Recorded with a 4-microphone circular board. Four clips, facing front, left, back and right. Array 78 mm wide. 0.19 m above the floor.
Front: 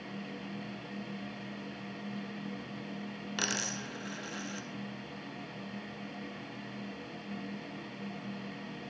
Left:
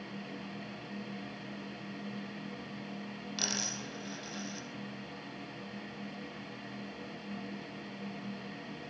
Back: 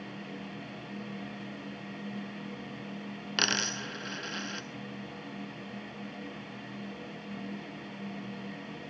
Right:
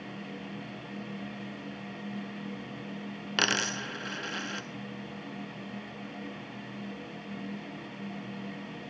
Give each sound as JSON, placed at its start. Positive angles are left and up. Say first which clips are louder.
{"t": 3.4, "sound": "a dropped coin", "louder": "right 11 dB, back 5 dB", "azimuth_deg": -110, "distance_m": 0.8}